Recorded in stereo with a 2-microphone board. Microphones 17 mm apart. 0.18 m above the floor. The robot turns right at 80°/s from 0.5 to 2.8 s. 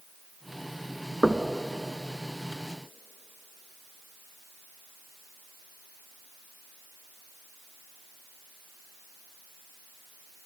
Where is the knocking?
55° right (ahead or behind), 1.2 m; by 1.5 s 50° right (ahead or behind), 1.2 m.